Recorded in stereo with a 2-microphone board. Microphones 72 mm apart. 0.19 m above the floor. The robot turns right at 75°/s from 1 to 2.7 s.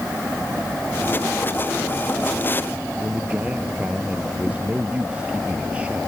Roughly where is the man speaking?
Centre.